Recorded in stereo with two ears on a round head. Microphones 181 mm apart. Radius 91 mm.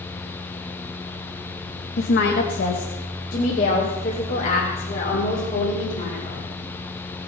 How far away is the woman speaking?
About 1.3 m.